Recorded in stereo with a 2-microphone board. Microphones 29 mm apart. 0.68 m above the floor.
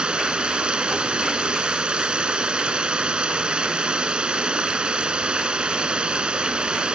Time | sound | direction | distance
0.0 | running water | 35° right (ahead or behind) | ?